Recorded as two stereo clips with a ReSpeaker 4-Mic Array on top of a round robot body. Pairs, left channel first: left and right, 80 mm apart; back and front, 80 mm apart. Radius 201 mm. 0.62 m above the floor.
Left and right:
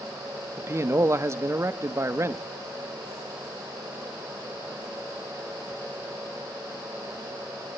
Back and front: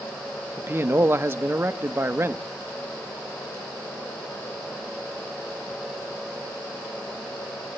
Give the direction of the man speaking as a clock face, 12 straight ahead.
2 o'clock.